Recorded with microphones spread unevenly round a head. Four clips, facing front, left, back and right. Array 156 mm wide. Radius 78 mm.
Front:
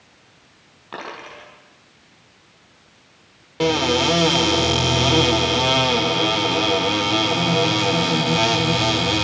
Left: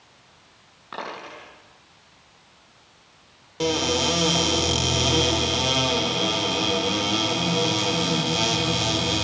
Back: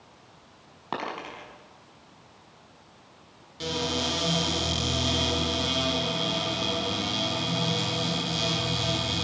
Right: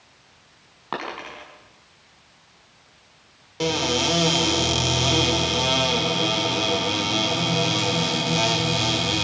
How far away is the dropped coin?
About 5.5 m.